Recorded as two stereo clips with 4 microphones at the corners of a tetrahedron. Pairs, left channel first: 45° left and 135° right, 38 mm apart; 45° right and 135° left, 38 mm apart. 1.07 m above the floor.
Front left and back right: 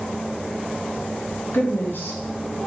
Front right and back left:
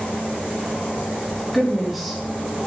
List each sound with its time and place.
1.5 s a woman speaking: 45° left, 2.5 m